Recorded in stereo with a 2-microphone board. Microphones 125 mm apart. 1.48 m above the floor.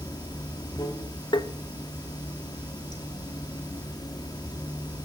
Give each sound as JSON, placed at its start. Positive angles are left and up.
{"t": 0.0, "sound": "running water", "side_deg": 35, "distance_m": 2.5}
{"t": 1.3, "sound": "tapping", "side_deg": 40, "distance_m": 0.9}